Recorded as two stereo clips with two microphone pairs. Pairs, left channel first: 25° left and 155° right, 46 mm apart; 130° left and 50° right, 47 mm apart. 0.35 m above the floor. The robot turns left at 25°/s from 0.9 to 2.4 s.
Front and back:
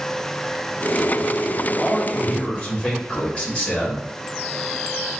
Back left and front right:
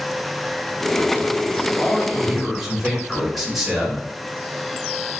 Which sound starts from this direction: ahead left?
A man speaking, at 1.8 s.